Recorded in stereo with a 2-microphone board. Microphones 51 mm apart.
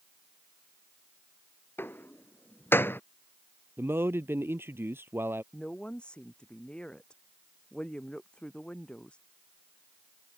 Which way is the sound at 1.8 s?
45° left (ahead or behind).